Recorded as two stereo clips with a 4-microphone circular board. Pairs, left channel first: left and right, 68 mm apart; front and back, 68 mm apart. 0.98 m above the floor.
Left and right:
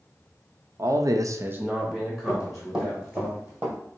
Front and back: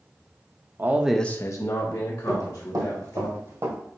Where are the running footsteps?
170° right, 2 m; by 3.8 s 150° right, 1.7 m.